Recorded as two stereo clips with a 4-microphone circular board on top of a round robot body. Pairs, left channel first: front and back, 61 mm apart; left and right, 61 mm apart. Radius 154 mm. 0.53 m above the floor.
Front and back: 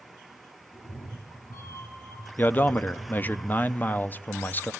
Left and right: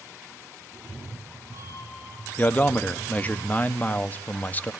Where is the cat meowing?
40° right, 4.5 m.